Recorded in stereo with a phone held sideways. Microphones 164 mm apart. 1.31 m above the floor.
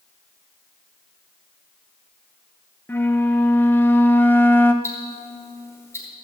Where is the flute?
15° left (ahead or behind), 0.8 m.